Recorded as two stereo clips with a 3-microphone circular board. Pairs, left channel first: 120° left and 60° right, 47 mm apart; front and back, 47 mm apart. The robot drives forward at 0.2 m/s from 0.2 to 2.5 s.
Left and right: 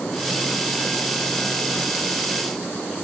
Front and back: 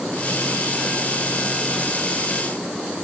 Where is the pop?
No pop in this recording.